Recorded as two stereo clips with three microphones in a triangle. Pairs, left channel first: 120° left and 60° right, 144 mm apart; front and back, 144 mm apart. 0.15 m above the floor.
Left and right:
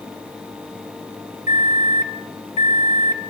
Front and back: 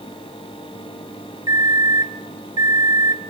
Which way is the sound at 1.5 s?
120° left.